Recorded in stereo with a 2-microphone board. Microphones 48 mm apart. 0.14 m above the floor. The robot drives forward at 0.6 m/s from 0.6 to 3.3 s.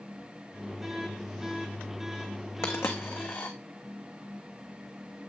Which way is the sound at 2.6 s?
65° left (ahead or behind).